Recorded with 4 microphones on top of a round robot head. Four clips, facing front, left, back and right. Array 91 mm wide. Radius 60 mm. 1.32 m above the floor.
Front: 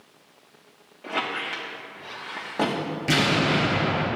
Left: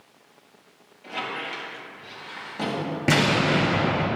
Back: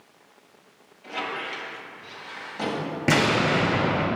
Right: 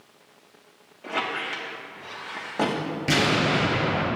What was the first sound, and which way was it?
A squeak, 40° right.